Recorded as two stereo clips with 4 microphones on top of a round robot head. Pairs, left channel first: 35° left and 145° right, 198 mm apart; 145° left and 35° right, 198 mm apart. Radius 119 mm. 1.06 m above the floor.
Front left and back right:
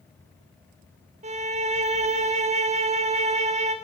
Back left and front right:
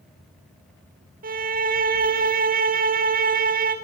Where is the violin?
85° right, 3.5 m.